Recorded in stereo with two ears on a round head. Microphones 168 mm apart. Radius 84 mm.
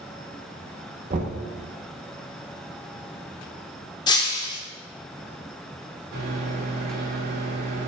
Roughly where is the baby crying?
I don't hear a baby crying.